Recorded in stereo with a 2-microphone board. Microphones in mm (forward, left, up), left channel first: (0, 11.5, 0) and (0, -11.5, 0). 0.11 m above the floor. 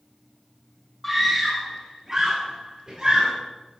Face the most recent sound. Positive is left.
turn(degrees=-45)  # may be behind; listen again after turning